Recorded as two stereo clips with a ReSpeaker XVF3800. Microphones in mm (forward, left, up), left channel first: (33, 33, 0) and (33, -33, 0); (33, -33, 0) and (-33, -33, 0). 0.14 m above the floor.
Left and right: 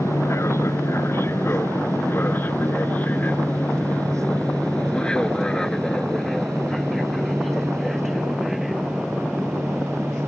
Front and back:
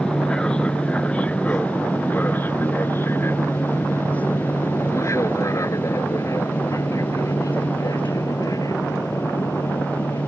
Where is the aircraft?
75° left; by 10.3 s 10° right.